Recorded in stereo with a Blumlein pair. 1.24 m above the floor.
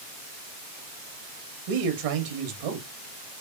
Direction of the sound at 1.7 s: 50° right.